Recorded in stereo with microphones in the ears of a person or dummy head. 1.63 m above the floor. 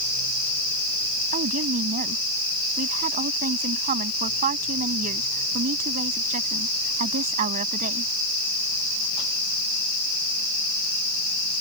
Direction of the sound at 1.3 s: 45° right (ahead or behind).